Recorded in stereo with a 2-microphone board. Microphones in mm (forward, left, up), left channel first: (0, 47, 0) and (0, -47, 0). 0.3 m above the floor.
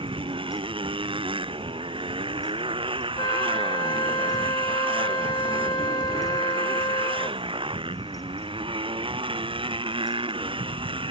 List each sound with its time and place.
0.0 s a motorcycle: 65° right (ahead or behind)
3.2 s a flute: 55° left (ahead or behind)